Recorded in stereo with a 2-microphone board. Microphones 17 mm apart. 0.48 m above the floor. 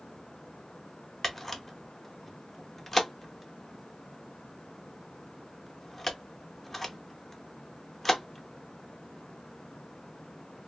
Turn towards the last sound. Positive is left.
turn(degrees=10)  # may be behind; listen again after turning